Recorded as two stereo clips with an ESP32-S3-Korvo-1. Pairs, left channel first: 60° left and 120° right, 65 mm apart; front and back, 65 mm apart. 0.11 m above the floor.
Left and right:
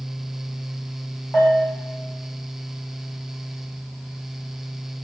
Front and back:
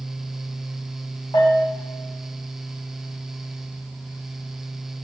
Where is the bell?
15° right, 2.5 m.